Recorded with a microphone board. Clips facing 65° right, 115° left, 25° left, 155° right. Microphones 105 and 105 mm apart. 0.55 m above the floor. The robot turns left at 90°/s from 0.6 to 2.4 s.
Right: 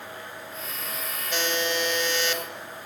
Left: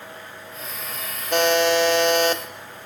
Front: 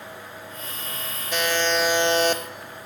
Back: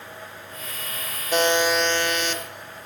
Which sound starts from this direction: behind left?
A buzzer, at 1.3 s.